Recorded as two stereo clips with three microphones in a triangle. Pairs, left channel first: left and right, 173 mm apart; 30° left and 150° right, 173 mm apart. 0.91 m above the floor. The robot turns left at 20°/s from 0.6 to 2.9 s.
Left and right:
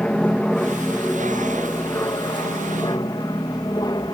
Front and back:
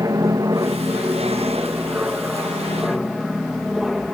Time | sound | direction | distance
0.0 | an aircraft | 165° left | ?